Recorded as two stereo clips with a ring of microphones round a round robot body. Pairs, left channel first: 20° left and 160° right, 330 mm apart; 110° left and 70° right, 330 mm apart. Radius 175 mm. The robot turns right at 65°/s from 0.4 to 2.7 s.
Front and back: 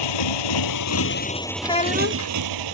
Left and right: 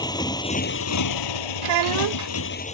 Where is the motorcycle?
35° left; by 2.7 s 175° right.